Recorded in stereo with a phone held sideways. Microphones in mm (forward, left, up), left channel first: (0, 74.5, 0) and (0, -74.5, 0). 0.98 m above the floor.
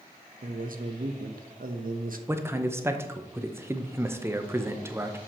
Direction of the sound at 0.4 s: 70° right (ahead or behind).